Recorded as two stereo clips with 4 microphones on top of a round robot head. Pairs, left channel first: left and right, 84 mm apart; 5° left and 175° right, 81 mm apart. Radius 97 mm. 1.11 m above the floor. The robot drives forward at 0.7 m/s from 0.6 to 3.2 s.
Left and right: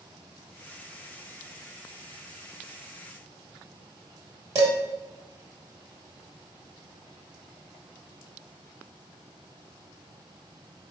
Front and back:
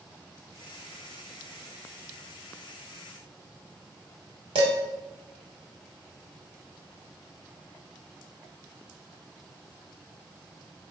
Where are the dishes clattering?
145° right, 1.6 m.